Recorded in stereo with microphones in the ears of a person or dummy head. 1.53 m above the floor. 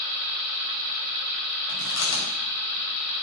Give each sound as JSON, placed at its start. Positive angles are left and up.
{"t": 1.7, "sound": "chewing", "side_deg": 80, "distance_m": 5.5}